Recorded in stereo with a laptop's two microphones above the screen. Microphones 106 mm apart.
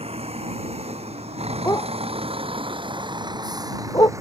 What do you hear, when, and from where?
0.0 s a vehicle: 80° right; by 4.2 s 30° right (ahead or behind)
1.6 s a dog barking: 35° left (ahead or behind)